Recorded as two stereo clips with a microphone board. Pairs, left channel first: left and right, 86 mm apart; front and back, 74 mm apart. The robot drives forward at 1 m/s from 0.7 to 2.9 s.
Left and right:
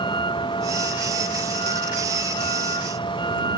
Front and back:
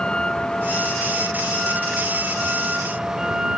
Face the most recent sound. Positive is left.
turn(degrees=100)